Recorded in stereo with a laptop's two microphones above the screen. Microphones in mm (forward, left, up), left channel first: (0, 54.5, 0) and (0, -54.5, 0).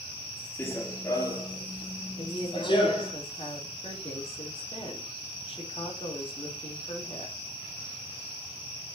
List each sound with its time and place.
0.6 s running footsteps: 20° left (ahead or behind), 1.0 m; by 3.1 s 50° left (ahead or behind), 1.8 m
2.2 s a woman speaking: 60° left (ahead or behind), 3 m